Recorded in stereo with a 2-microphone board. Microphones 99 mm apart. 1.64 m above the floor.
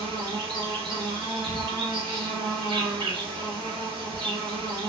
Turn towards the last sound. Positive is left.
turn(degrees=-55)  # may be behind; listen again after turning